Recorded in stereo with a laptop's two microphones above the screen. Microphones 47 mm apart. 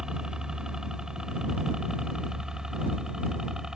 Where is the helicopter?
15° right (ahead or behind).